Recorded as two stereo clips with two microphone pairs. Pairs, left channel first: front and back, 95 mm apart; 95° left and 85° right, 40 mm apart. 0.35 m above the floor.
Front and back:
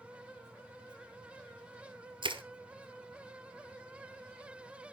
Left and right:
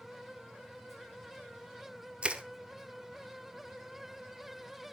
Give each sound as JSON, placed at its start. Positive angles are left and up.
{"t": 2.2, "sound": "crushing", "azimuth_deg": -150, "distance_m": 1.6}